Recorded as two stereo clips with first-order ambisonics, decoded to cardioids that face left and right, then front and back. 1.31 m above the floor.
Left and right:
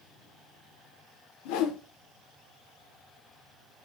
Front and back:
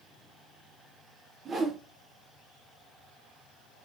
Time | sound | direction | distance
1.4 | a whoosh | 105° left | 0.5 m